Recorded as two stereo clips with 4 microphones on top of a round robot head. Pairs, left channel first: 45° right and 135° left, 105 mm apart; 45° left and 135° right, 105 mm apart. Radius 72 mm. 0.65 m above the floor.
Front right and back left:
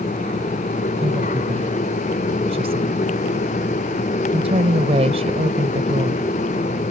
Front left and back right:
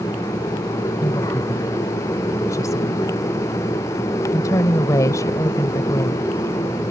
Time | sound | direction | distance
1.0 | a woman speaking | 105° left | ?